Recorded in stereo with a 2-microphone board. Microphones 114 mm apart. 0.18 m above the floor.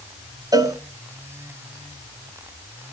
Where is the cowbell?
35° right (ahead or behind), 1.0 m.